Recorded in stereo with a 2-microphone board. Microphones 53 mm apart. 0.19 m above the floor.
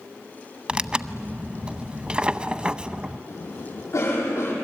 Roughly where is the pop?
No pop in this recording.